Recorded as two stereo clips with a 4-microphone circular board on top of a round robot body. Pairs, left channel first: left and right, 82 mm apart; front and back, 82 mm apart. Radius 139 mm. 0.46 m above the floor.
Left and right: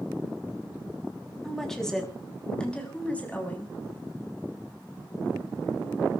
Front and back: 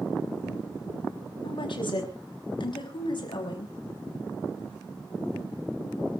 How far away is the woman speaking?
About 5.5 m.